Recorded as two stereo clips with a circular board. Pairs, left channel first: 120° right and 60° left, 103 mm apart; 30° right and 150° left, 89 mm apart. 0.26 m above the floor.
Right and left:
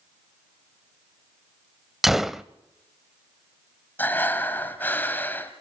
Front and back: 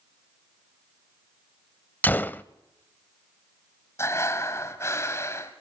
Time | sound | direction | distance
2.0 | a gunshot | 20° right | 0.6 m
4.0 | breathing | 60° right | 1.7 m